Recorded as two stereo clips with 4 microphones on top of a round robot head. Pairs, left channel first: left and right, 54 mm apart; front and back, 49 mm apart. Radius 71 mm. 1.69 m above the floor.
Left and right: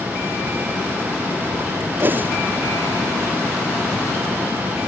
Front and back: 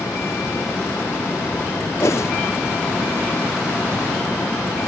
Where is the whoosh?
40° right.